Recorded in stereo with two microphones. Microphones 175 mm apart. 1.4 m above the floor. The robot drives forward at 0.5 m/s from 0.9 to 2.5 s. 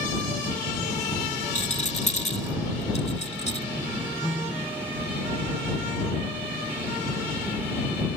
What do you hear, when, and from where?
1.6 s a rattle: 40° left (ahead or behind); by 3.7 s 35° left (ahead or behind)
4.2 s a piano: 10° left (ahead or behind)